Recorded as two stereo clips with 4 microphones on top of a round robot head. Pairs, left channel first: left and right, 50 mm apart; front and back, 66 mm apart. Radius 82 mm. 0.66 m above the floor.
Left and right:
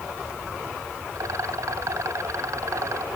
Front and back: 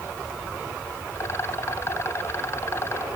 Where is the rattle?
60° right.